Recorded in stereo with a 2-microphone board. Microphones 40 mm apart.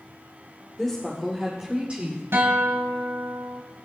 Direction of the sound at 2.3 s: 75° right (ahead or behind).